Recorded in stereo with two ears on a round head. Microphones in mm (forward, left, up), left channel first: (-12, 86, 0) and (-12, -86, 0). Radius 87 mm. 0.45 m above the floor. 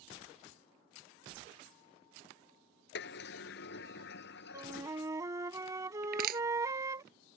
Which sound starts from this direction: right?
Crushing, at 6.0 s.